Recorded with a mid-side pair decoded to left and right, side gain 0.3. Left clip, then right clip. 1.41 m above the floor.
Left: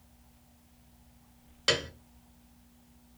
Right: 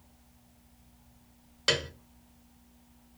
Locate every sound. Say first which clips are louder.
1.7 s a piano: even; straight ahead, 0.6 m